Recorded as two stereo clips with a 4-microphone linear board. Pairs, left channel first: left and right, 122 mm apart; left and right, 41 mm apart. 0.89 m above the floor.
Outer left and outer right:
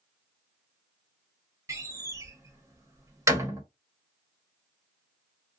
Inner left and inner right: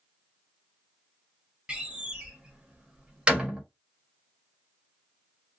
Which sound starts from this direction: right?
A door slam, at 1.7 s.